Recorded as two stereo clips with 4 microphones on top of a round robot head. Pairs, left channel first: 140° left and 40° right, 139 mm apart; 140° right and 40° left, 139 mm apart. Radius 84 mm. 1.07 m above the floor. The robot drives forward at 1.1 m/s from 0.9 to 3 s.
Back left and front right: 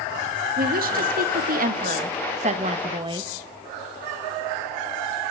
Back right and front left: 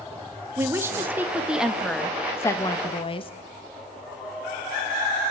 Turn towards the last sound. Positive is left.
turn(degrees=-90)